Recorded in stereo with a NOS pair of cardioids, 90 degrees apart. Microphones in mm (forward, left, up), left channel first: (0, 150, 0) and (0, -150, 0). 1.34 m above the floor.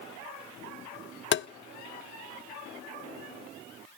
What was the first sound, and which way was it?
Tapping, 40° left.